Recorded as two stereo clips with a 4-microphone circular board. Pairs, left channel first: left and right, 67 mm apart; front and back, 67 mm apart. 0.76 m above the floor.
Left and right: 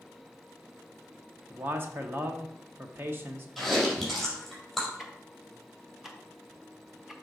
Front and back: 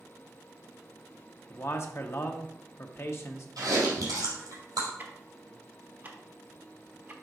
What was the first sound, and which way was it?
A man speaking, 40° right.